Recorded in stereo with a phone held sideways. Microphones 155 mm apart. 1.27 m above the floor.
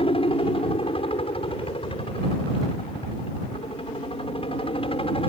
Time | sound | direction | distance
0.0 | a helicopter | 35° left (ahead or behind) | ?